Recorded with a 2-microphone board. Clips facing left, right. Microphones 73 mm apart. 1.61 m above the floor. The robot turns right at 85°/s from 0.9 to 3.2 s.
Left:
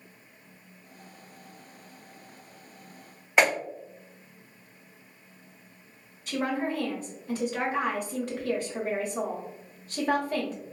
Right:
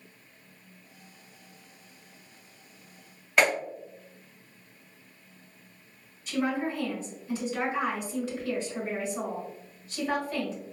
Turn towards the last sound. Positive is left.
turn(degrees=50)  # may be behind; listen again after turning